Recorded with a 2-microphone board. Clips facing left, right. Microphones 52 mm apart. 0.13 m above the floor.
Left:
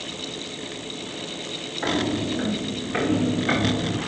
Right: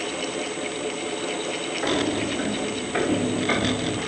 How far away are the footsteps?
About 6.5 m.